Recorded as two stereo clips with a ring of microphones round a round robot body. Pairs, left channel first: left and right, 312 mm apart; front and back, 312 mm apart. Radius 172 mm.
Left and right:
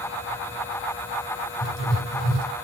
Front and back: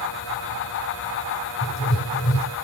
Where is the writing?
55° left, 3 m.